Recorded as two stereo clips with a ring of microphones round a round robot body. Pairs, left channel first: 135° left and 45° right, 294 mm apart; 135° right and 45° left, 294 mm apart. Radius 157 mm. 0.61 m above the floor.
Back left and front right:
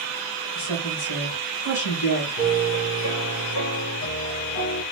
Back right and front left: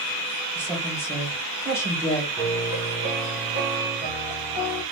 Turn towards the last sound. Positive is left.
turn(degrees=115)